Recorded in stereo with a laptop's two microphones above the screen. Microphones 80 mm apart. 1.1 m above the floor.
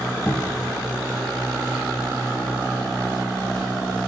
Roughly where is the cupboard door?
Left.